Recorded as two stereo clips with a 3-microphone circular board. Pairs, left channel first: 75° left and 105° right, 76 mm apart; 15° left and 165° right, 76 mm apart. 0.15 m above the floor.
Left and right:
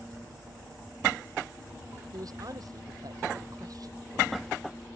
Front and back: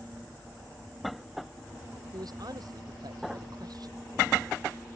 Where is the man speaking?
140° right.